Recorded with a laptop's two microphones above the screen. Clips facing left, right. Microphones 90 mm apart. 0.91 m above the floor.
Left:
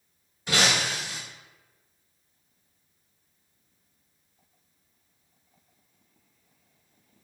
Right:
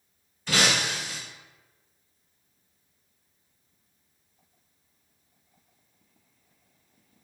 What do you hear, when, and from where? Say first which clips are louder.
0.5 s breaking glass: even; 15° left (ahead or behind), 1.8 m